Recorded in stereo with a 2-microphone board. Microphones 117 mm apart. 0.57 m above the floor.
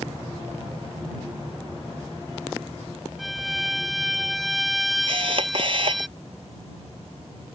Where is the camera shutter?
50° right (ahead or behind).